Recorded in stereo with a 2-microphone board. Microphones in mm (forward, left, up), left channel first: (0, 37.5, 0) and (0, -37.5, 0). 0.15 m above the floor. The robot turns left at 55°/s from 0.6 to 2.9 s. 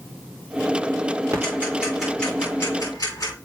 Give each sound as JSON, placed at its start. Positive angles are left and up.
{"t": 1.3, "sound": "ticking", "side_deg": -40, "distance_m": 6.0}